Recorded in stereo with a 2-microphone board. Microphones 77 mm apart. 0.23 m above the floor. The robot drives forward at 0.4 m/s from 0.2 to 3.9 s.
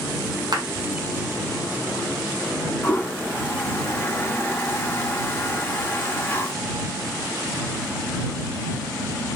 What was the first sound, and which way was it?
A clap, 60° right (ahead or behind).